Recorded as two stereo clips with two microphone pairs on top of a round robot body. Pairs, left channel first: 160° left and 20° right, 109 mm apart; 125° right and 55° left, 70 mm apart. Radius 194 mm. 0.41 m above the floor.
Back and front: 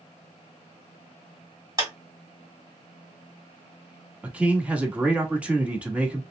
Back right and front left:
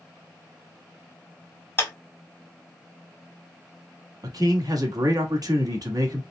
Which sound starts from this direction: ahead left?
A man speaking, at 4.2 s.